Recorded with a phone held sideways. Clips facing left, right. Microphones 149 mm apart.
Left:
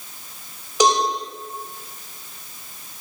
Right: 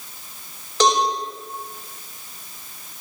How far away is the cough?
No cough in this recording.